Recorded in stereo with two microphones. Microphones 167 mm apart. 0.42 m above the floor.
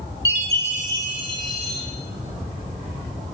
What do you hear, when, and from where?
0.2 s a chime: 25° right (ahead or behind), 1.3 m